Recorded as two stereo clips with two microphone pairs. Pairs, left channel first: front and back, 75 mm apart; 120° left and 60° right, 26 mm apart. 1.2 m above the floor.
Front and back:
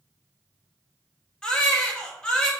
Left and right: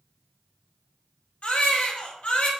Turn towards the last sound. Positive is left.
turn(degrees=80)